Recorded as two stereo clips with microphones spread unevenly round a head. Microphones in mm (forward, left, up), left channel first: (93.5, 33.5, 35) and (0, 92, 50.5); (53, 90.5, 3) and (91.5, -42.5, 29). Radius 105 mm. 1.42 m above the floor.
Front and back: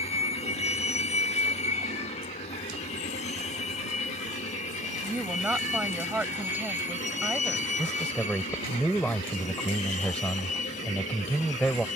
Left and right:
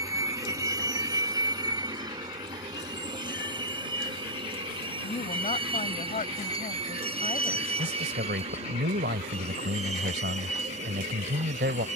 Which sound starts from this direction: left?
A woman speaking, at 5.0 s.